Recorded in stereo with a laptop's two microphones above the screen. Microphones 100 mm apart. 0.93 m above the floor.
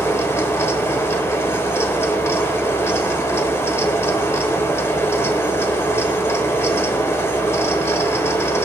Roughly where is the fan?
Left.